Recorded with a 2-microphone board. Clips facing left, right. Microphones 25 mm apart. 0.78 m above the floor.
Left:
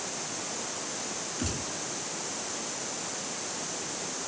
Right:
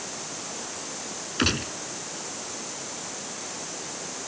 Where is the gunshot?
65° right (ahead or behind).